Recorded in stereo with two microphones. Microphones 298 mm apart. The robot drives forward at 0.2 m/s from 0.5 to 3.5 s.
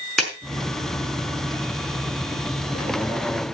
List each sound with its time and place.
0.2 s a clap: centre (ahead or behind), 5 m